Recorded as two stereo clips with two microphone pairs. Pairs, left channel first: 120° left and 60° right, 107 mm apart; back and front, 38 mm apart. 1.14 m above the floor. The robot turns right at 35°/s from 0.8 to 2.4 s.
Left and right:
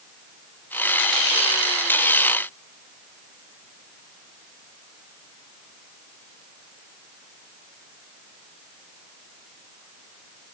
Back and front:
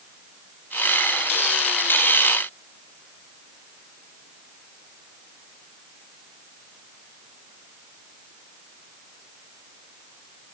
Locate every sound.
Only background noise.